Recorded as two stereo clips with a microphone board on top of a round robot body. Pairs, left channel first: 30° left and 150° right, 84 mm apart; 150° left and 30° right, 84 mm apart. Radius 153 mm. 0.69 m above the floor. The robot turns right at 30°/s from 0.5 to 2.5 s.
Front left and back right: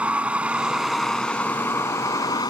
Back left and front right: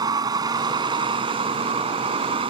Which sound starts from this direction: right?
A vehicle, at 0.0 s.